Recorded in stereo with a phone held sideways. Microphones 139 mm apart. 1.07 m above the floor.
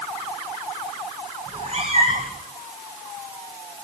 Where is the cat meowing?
50° right (ahead or behind), 8.5 m.